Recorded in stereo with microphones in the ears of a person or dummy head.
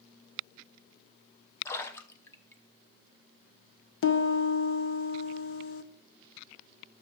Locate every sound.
1.6 s a splash: 15° left (ahead or behind), 1.0 m
4.0 s a piano: 70° left (ahead or behind), 1.2 m